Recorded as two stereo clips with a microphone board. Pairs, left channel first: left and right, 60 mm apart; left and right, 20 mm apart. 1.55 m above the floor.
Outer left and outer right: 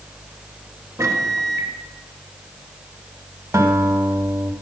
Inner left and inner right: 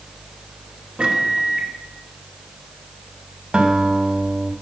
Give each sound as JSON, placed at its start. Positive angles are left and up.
{"t": 1.0, "sound": "a microwave", "side_deg": -55, "distance_m": 1.6}
{"t": 3.5, "sound": "a guitar", "side_deg": -60, "distance_m": 2.0}